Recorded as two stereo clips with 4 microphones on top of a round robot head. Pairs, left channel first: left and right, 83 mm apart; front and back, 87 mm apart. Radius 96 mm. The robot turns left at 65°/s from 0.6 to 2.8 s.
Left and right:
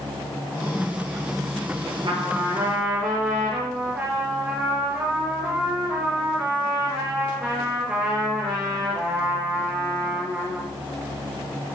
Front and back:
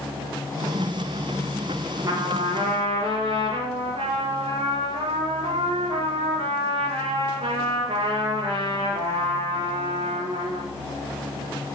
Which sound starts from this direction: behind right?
A trumpet, at 2.0 s.